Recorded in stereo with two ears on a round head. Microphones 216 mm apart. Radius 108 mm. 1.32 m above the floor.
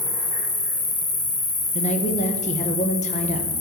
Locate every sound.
0.0 s an insect: 35° left (ahead or behind), 1.4 m
1.8 s a woman speaking: 30° left (ahead or behind), 0.9 m